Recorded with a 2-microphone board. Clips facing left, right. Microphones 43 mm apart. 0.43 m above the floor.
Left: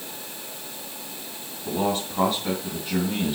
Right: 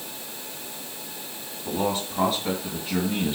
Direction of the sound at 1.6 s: 5° left (ahead or behind).